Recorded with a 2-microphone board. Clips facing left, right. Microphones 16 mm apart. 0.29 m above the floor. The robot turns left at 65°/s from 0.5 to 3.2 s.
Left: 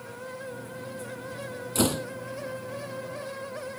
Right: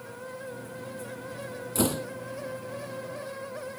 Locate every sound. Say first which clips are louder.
1.8 s a door slam: left 2 dB; 25° left (ahead or behind); by 2.1 s 5° left (ahead or behind)